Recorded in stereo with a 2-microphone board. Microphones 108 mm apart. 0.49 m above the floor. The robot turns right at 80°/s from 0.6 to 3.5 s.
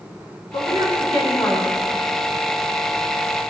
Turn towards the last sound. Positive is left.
turn(degrees=-65)